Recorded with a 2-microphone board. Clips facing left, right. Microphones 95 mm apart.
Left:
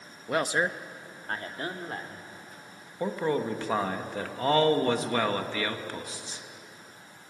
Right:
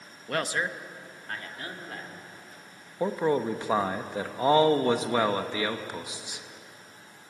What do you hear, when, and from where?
0.3 s a man speaking: 10° left (ahead or behind), 0.6 m; by 2.3 s 35° left (ahead or behind), 2.5 m
3.0 s a man speaking: 15° right (ahead or behind), 0.9 m